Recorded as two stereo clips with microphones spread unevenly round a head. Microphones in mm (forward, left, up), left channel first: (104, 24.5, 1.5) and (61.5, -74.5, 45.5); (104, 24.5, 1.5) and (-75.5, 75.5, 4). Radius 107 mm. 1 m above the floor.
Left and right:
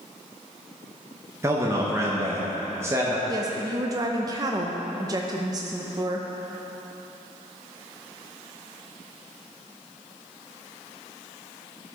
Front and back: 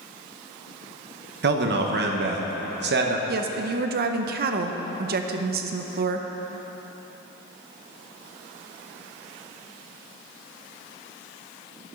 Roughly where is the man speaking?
Behind.